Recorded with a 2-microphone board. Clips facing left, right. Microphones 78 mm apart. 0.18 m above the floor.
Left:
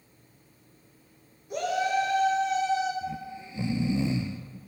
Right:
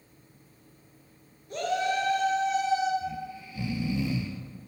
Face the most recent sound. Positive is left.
turn(degrees=30)  # may be behind; listen again after turning